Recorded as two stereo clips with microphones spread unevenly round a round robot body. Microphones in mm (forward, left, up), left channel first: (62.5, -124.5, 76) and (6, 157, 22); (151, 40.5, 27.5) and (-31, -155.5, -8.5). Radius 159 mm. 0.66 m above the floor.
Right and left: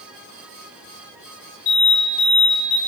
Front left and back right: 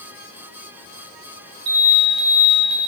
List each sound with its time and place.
1.7 s an alarm: 110° right, 3 m